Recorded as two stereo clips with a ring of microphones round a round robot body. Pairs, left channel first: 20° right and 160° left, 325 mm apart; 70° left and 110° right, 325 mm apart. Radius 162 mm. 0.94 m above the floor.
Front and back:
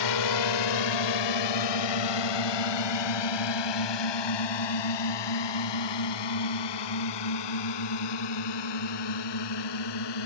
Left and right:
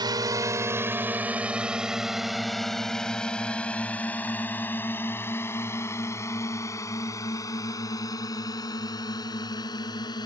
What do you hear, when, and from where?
0.0 s a drone: 35° right; by 10.3 s 10° right